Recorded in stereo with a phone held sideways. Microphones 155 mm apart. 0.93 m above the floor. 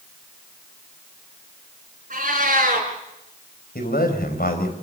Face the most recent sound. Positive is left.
turn(degrees=85)